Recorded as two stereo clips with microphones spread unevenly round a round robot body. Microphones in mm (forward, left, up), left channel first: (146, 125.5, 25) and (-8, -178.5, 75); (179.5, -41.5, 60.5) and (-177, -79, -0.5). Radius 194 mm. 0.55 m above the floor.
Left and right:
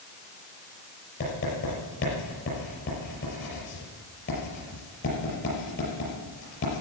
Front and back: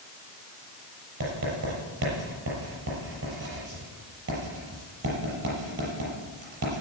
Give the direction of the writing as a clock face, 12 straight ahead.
8 o'clock.